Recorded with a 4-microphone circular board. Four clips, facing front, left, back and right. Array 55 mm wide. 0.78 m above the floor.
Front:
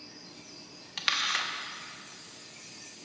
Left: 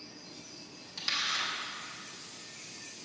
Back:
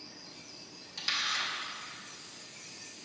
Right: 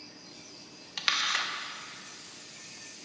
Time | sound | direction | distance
1.0 | a camera shutter | 45° right | 0.7 m